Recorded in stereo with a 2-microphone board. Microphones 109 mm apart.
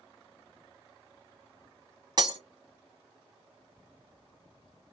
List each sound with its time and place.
2.2 s breaking glass: 40° right (ahead or behind), 0.9 m